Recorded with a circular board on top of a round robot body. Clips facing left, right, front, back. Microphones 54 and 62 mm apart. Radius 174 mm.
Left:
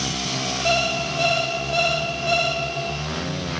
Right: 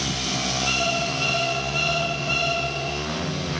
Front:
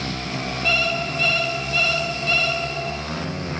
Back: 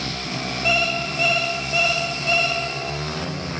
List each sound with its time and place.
0.7 s an alarm clock: 100° left, 0.8 m